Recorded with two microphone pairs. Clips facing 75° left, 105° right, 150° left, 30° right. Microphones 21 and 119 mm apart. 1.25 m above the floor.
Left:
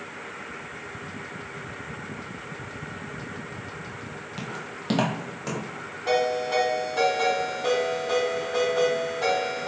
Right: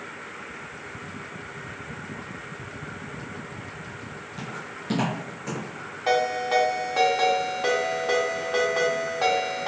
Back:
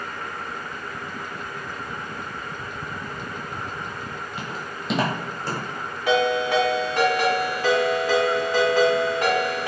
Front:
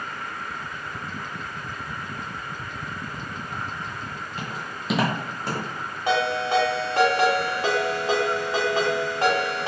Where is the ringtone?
90° right, 1.2 m.